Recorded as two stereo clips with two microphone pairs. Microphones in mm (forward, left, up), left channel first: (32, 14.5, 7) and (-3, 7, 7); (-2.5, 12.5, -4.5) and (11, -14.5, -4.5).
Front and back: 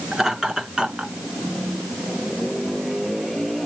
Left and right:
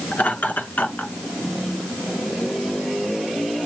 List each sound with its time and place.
0.1 s laughter: 110° left, 4.5 m; by 1.1 s 125° left, 3.5 m